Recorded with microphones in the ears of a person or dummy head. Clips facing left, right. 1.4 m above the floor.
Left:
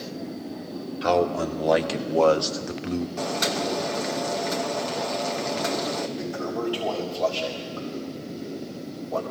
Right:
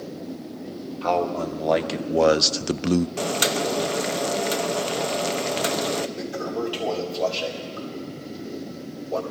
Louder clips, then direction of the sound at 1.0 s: Left 1 dB; 15° left (ahead or behind).